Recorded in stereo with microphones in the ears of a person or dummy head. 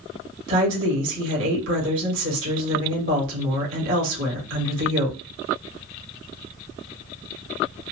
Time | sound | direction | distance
0.5 | a woman speaking | 70° right (ahead or behind) | 1.5 m